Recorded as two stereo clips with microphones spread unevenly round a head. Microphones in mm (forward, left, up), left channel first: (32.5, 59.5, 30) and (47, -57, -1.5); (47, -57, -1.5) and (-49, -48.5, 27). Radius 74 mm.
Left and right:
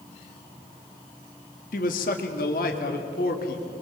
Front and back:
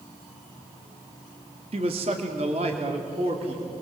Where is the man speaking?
125° left, 2 m; by 3.7 s 120° left, 3.5 m.